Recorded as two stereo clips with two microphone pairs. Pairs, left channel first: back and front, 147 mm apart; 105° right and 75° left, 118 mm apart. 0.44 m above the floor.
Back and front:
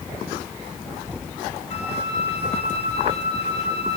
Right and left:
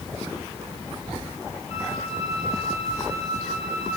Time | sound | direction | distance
1.7 | a flute | 135° right | 6 m